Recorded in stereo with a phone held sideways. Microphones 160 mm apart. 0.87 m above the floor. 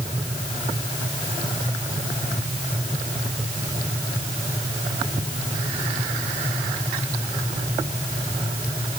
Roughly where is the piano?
I don't hear a piano.